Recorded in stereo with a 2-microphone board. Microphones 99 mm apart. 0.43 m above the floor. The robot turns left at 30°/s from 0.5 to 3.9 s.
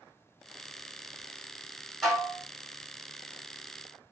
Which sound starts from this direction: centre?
Dishes clattering, at 2.0 s.